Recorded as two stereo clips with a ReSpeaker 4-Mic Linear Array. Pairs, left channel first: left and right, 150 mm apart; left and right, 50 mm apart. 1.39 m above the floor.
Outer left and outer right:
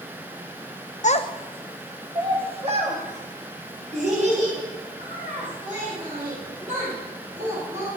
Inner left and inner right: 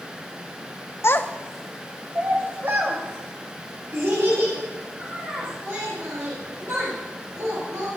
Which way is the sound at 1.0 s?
55° left (ahead or behind).